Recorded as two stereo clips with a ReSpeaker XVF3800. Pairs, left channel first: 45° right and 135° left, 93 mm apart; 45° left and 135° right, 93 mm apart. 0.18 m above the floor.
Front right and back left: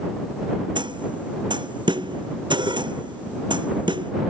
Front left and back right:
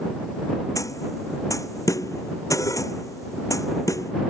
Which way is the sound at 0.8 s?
100° left.